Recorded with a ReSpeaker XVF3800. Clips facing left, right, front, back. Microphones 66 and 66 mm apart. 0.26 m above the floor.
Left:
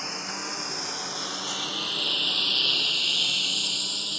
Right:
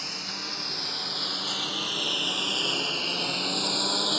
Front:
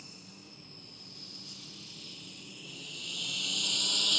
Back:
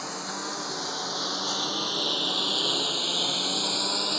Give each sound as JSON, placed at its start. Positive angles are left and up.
{"t": 0.0, "sound": "a lawn mower", "azimuth_deg": 160}